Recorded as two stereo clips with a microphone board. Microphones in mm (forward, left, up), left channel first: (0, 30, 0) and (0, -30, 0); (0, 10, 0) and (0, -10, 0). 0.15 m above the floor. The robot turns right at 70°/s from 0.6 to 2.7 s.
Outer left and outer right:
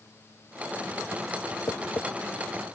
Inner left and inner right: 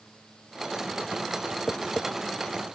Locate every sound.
1.7 s tapping: 65° left (ahead or behind); by 2.1 s 45° left (ahead or behind)